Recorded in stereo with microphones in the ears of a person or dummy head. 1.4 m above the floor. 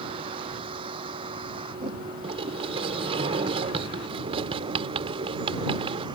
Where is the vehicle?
35° right (ahead or behind); by 6.2 s 30° right (ahead or behind).